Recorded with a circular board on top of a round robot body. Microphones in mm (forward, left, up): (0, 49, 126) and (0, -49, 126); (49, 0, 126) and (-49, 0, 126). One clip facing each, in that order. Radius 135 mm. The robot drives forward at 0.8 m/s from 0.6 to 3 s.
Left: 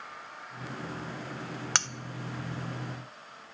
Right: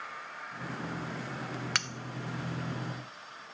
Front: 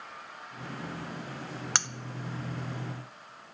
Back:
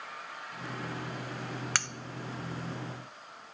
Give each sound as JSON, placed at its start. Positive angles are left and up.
{"t": 1.8, "sound": "cutlery clinking", "azimuth_deg": 55, "distance_m": 0.5}